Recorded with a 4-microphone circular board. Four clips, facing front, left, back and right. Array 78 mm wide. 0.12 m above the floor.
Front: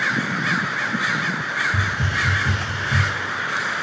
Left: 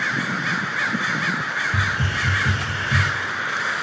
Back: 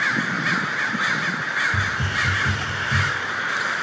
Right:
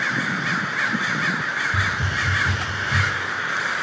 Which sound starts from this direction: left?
A hiss, at 1.7 s.